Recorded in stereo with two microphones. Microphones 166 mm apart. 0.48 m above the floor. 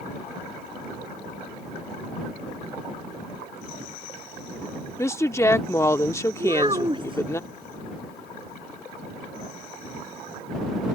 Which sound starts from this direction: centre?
A woman speaking, at 5.0 s.